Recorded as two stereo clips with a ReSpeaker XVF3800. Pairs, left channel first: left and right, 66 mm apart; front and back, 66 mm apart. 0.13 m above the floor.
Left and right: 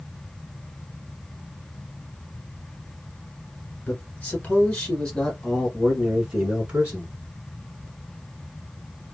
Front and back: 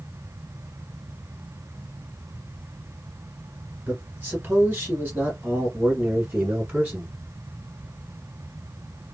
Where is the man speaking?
125° left, 1.9 m; by 7.2 s 135° right, 1.6 m.